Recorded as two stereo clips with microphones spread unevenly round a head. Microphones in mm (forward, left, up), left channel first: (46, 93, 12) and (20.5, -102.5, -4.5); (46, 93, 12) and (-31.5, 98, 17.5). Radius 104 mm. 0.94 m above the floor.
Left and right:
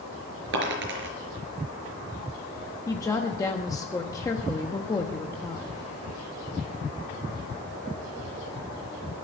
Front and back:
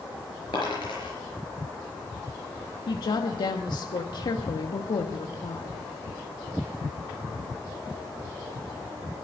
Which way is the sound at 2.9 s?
10° left.